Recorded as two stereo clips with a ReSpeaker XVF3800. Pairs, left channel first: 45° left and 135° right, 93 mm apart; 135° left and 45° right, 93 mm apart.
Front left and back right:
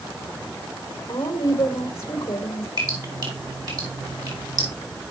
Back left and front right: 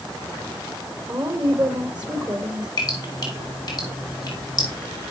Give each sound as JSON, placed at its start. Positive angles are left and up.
{"t": 1.1, "sound": "a woman speaking", "azimuth_deg": -15, "distance_m": 4.0}
{"t": 2.8, "sound": "dripping", "azimuth_deg": 180, "distance_m": 9.0}